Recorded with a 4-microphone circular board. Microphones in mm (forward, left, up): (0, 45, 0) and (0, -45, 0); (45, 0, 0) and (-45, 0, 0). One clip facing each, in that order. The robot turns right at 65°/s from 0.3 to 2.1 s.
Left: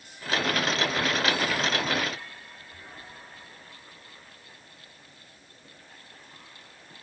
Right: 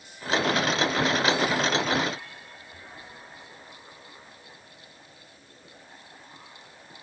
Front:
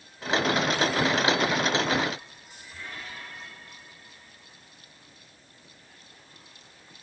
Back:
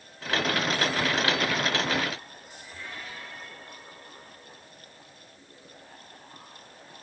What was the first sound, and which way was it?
Only background noise.